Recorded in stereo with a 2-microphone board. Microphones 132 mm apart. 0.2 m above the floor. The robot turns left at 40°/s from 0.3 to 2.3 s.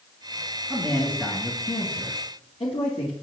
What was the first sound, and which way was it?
A man speaking, 175° right.